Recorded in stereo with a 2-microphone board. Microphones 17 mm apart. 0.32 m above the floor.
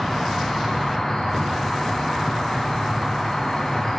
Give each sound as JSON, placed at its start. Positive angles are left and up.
{"t": 0.0, "sound": "an insect", "side_deg": 20, "distance_m": 8.5}